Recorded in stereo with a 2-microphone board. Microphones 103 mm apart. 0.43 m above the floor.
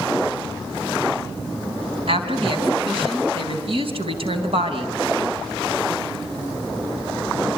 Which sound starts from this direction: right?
A woman speaking, at 2.1 s.